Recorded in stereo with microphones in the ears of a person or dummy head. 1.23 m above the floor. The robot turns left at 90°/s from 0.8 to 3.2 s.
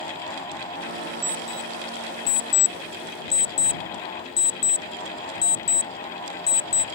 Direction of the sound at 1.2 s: 25° right (ahead or behind).